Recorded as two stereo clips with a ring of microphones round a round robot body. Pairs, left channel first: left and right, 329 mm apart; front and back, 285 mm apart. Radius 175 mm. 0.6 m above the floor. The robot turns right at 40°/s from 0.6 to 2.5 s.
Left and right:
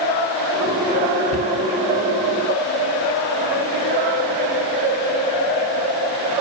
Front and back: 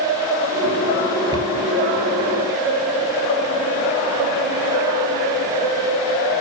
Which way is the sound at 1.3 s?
105° left.